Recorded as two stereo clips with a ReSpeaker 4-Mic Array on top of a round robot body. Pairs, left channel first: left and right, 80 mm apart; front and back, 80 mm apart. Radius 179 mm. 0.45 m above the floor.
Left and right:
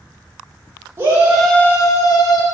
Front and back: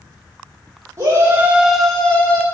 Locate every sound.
1.0 s a shout: 140° right, 1.2 m; by 2.4 s 65° left, 1.6 m